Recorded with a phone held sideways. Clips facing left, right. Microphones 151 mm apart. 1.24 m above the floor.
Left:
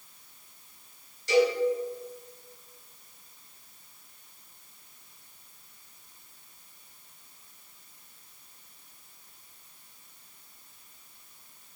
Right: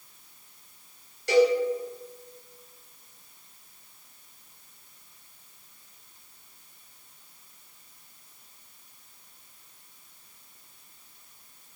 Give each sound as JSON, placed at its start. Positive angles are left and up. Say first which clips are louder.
{"t": 1.3, "sound": "a cowbell", "louder": "right 3 dB", "side_deg": -70, "distance_m": 4.0}